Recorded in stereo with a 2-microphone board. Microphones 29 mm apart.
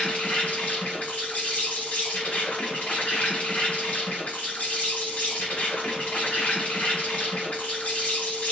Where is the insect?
55° left (ahead or behind), 1.5 m.